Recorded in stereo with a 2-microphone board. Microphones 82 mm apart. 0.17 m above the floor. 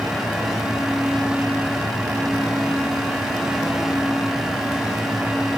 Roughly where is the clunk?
No clunk in this recording.